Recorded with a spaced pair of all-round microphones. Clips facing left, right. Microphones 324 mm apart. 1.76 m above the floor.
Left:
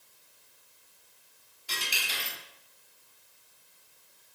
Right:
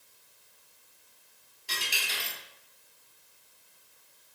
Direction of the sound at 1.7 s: Centre (ahead or behind).